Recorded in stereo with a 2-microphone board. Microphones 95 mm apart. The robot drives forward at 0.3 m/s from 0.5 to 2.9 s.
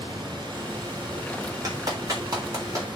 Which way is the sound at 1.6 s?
40° right (ahead or behind).